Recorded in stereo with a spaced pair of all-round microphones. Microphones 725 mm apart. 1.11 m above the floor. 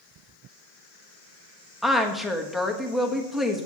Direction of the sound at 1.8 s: Centre (ahead or behind).